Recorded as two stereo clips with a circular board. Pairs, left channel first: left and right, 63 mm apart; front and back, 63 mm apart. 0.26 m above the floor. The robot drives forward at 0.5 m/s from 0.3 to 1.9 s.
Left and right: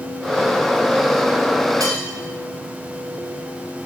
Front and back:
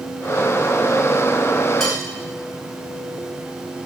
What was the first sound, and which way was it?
Cutlery clinking, 90° right.